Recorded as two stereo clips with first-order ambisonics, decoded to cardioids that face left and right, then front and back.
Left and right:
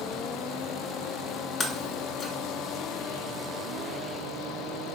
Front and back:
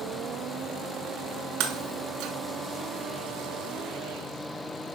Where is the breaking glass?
160° left, 1.4 m.